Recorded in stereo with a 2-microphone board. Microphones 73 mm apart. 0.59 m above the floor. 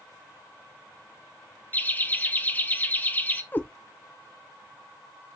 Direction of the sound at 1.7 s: 25° left (ahead or behind).